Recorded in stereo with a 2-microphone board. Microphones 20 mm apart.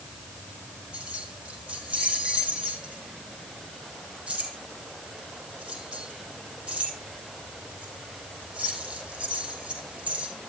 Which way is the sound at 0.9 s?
75° right (ahead or behind).